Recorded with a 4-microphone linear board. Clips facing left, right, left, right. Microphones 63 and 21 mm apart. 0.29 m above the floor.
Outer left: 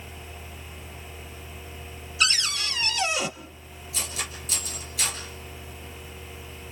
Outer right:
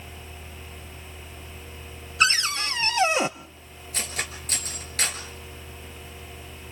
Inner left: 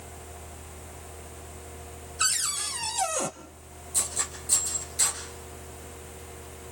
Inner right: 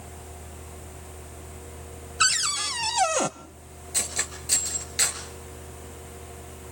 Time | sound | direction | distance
2.2 | a cupboard door | 35° right (ahead or behind) | 0.7 m
3.9 | cutlery clinking | 50° right (ahead or behind) | 3 m